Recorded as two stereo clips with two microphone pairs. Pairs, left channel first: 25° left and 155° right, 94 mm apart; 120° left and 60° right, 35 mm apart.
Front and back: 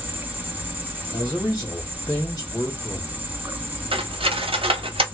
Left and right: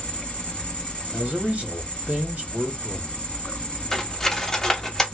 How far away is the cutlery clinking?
About 0.6 m.